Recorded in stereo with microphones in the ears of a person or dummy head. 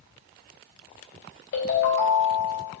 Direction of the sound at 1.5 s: 80° left.